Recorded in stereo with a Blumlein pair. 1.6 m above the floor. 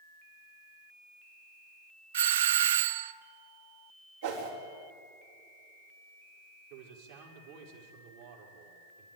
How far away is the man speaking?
About 5 m.